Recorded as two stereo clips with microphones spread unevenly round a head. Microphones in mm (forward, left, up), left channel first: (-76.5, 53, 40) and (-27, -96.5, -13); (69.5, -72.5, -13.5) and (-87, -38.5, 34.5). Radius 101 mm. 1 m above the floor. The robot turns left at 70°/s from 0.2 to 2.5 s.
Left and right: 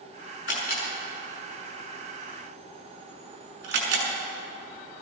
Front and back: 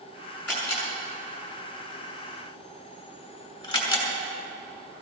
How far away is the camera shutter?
About 6 m.